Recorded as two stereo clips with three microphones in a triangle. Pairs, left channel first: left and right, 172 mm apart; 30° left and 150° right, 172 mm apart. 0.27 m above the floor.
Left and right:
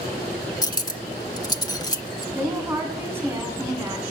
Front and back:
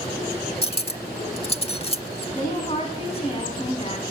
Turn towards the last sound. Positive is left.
turn(degrees=-15)